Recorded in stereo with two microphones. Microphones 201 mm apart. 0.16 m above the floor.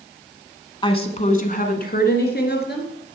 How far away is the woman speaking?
About 1.1 m.